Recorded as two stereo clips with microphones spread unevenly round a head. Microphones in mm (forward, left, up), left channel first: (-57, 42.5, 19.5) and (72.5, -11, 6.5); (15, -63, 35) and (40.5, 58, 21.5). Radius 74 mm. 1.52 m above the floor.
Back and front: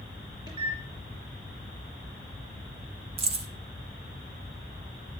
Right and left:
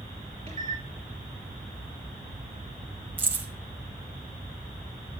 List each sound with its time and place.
0.5 s a microwave: 35° left, 4 m
3.2 s keys jangling: 5° left, 0.9 m